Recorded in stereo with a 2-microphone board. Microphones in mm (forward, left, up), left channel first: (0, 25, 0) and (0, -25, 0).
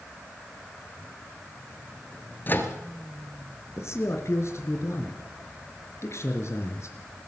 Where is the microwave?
40° left (ahead or behind), 2.5 m.